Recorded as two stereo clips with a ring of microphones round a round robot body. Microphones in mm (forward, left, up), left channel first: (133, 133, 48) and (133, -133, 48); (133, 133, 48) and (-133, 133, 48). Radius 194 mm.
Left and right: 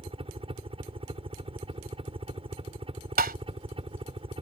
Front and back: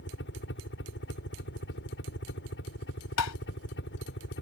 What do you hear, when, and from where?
0.0 s a helicopter: 30° right
3.2 s tapping: 35° right